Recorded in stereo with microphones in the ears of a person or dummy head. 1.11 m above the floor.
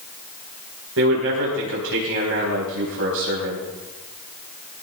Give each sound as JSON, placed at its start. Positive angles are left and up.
{"t": 1.0, "sound": "a man speaking", "side_deg": -70, "distance_m": 4.5}